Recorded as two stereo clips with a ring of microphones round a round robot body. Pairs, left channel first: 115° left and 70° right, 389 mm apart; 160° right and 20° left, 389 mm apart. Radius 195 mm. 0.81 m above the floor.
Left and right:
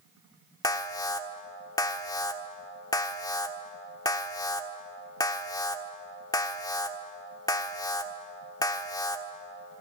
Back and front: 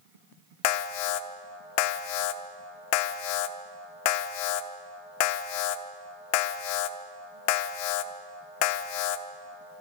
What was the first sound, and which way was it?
An alarm, 165° right.